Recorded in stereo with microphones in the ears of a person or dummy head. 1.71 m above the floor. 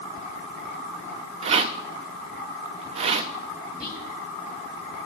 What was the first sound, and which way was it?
A rattle, 35° right (ahead or behind).